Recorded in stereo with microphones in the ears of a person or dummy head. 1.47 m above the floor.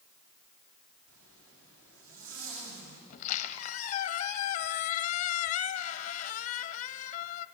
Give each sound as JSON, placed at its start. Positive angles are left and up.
{"t": 1.1, "sound": "a zipper", "side_deg": -75, "distance_m": 6.5}
{"t": 3.1, "sound": "a squeak", "side_deg": 45, "distance_m": 1.1}